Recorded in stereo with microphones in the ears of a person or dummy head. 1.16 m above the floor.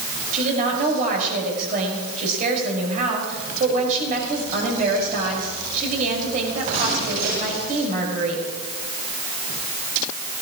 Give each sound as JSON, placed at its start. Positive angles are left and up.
{"t": 0.3, "sound": "a woman speaking", "side_deg": -40, "distance_m": 5.0}